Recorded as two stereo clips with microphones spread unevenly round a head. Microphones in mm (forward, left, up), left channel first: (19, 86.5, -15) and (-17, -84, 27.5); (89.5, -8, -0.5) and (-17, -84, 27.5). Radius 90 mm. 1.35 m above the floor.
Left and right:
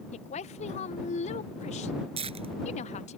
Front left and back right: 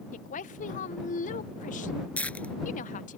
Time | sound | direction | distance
0.1 | a woman speaking | 30° left | ?
2.2 | tearing paper | 45° right | ?